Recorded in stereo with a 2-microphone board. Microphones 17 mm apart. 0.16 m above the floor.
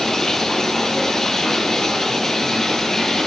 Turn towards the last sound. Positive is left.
turn(degrees=25)  # may be behind; listen again after turning